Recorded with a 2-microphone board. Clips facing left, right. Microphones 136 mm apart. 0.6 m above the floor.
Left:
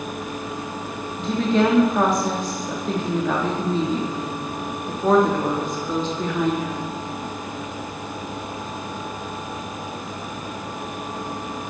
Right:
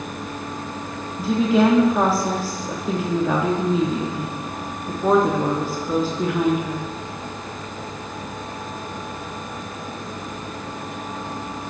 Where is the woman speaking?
5° right (ahead or behind), 0.6 m.